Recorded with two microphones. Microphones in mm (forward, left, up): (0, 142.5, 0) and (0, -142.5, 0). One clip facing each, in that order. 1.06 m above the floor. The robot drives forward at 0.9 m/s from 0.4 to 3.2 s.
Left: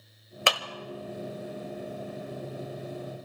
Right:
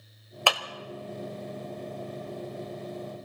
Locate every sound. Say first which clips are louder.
0.5 s a clap: even; 20° left (ahead or behind), 1.2 m; by 0.6 s 25° left (ahead or behind), 1.1 m